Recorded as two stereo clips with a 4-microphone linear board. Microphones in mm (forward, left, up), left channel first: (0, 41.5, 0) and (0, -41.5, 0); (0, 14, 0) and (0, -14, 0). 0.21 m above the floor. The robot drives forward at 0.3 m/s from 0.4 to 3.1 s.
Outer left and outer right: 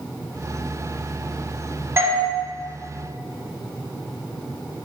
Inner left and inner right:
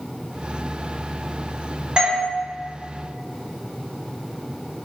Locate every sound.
2.0 s a doorbell: 30° right (ahead or behind), 1.9 m